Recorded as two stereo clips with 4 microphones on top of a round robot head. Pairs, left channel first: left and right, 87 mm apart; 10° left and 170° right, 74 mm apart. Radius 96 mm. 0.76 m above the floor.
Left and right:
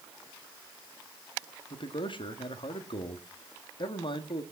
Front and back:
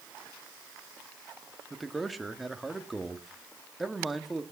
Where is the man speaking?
100° left, 1.8 m.